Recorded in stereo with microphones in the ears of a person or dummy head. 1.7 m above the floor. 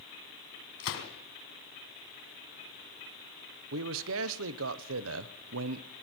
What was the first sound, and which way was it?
A gunshot, 70° left (ahead or behind).